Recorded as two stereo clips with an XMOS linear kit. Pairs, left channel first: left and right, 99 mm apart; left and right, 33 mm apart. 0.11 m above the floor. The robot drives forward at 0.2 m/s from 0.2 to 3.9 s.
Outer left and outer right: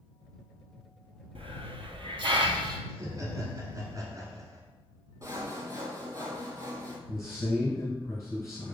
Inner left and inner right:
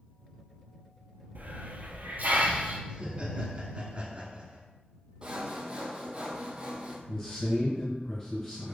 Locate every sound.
1.4 s a hiss: 70° right (ahead or behind), 0.5 m; by 2.8 s 50° right (ahead or behind), 0.6 m
2.9 s laughter: 30° right (ahead or behind), 1.2 m
5.2 s sawing: 30° right (ahead or behind), 0.8 m
7.1 s a man speaking: 30° left (ahead or behind), 1.2 m